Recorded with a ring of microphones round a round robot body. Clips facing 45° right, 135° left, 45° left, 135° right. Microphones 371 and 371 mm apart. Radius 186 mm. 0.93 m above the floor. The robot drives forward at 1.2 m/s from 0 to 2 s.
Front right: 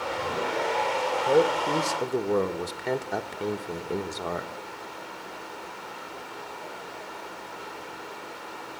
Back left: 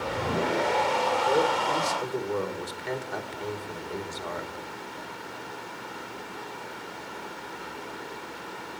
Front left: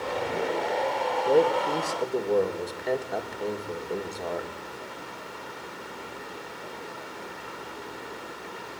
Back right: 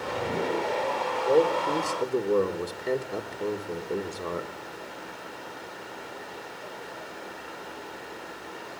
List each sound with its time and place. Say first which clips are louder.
1.3 s a man speaking: front right 6 dB, even; 35° right, 1.9 m; by 4.5 s 60° right, 1.4 m